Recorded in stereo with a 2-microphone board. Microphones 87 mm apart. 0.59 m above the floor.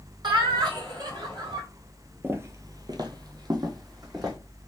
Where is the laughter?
55° right (ahead or behind), 2 m.